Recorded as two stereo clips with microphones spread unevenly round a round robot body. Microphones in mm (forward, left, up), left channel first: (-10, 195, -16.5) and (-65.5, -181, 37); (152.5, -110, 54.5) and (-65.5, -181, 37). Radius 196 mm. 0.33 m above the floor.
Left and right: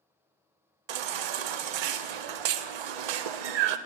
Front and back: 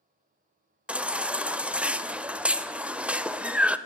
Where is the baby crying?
80° right, 0.5 m.